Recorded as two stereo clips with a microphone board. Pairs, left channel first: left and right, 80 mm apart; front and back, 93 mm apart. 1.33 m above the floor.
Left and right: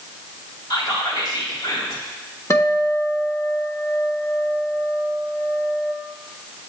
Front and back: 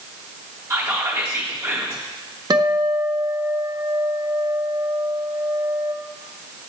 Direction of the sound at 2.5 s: 140° left.